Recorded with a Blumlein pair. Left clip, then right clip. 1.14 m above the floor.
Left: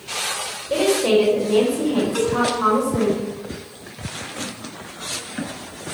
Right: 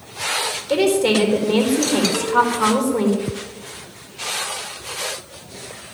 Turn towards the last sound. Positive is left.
turn(degrees=-60)